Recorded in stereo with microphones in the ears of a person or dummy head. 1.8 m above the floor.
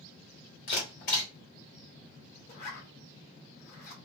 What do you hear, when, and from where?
0.7 s a camera shutter: 45° left (ahead or behind), 1.8 m
2.5 s a zipper: 50° left (ahead or behind), 1.4 m